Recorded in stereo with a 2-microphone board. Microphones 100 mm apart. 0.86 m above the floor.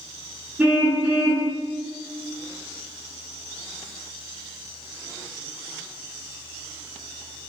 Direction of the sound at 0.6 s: 15° right (ahead or behind).